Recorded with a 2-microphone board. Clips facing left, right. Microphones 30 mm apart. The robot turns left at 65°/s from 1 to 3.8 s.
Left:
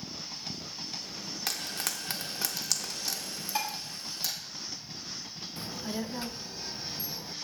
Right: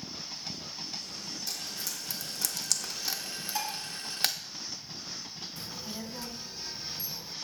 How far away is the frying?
About 0.6 m.